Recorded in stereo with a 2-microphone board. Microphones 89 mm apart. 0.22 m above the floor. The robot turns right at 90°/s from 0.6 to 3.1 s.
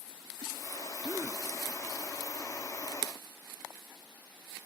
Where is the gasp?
50° right, 1.3 m; by 1.4 s 20° right, 1.3 m.